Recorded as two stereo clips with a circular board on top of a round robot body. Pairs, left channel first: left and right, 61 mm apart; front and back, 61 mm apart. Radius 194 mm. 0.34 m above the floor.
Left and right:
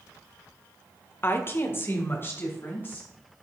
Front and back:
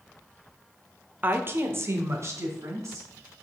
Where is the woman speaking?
130° left, 1.2 m; by 3.1 s 145° left, 3.5 m.